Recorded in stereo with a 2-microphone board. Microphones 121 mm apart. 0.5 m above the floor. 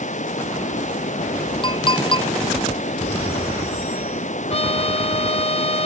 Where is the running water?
85° left.